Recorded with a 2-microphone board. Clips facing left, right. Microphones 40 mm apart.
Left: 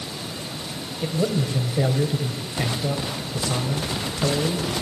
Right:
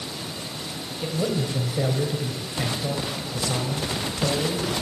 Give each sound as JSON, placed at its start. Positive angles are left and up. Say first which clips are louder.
{"t": 1.0, "sound": "a man speaking", "louder": "left 2 dB", "side_deg": 10, "distance_m": 3.0}